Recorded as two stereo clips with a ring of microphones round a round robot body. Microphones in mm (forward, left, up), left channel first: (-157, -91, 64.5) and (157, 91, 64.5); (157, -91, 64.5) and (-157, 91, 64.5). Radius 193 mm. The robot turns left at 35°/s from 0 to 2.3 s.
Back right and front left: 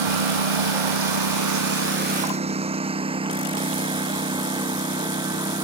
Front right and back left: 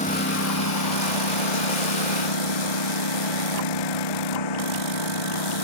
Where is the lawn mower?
40° left; by 5.7 s 50° right.